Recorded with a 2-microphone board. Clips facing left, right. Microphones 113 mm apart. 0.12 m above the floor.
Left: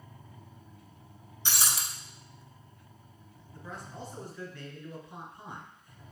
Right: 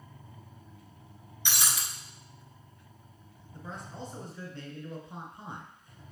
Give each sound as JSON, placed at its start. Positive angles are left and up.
{"t": 1.4, "sound": "breaking glass", "side_deg": 35, "distance_m": 0.7}
{"t": 3.5, "sound": "a man speaking", "side_deg": -25, "distance_m": 1.2}